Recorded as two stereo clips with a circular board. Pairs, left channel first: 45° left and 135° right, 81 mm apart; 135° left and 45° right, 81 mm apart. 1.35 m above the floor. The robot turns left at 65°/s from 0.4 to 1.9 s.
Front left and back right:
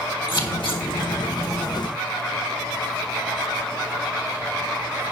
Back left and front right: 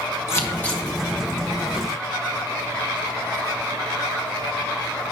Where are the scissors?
75° left, 1.7 m; by 0.8 s 45° left, 1.7 m.